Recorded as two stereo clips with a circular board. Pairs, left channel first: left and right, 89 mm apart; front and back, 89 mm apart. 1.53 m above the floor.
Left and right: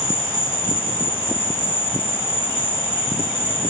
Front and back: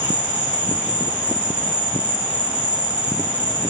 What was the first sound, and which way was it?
An insect, 110° left.